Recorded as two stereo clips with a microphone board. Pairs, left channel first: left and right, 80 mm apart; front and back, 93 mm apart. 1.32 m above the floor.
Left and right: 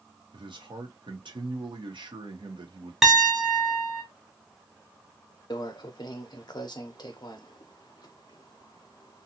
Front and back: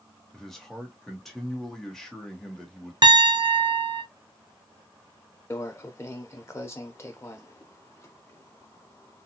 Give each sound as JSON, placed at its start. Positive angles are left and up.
{"t": 0.3, "sound": "a man speaking", "azimuth_deg": -85, "distance_m": 0.9}
{"t": 3.0, "sound": "a piano", "azimuth_deg": -175, "distance_m": 0.7}
{"t": 5.5, "sound": "a microwave", "azimuth_deg": 60, "distance_m": 0.6}